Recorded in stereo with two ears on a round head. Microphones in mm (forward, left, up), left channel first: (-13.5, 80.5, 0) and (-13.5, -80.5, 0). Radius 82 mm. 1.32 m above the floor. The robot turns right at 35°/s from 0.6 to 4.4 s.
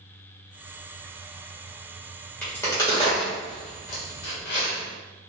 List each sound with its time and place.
2.4 s a crack: 10° left (ahead or behind), 1.9 m; by 4.8 s 75° left (ahead or behind), 1.9 m